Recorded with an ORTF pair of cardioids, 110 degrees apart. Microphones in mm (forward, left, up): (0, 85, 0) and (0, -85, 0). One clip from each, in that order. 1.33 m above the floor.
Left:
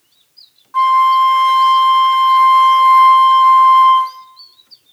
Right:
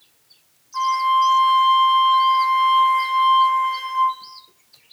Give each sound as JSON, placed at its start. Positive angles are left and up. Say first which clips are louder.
{"t": 0.7, "sound": "a flute", "louder": "left 8 dB", "azimuth_deg": 45, "distance_m": 0.6}